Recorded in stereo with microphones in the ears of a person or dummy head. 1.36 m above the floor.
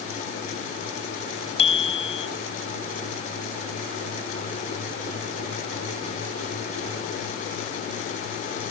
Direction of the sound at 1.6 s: 35° left (ahead or behind).